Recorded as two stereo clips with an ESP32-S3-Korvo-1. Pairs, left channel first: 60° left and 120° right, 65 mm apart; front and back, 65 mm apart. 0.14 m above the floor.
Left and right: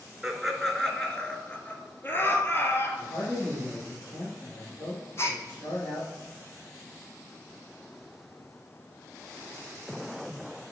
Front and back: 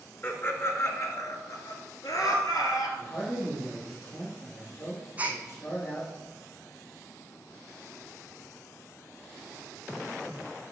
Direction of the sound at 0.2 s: 40° right.